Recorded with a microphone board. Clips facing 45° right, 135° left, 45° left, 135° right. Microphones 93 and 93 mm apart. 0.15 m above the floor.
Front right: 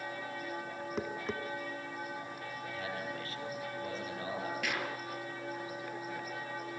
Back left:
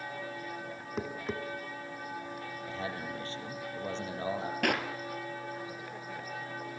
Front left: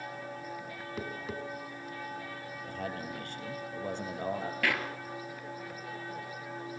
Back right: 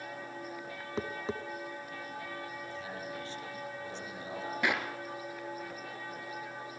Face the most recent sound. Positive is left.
turn(degrees=155)